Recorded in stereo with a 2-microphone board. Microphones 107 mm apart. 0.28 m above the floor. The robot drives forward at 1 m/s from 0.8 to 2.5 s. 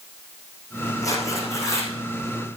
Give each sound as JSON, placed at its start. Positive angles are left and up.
{"t": 1.0, "sound": "tearing paper", "side_deg": 30, "distance_m": 5.0}